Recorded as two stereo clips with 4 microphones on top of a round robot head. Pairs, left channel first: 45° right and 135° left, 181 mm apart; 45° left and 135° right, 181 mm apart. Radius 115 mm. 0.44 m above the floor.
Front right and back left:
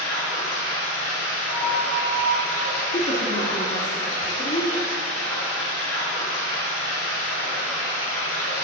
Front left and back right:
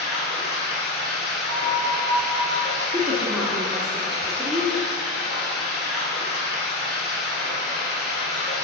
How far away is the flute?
About 1.1 m.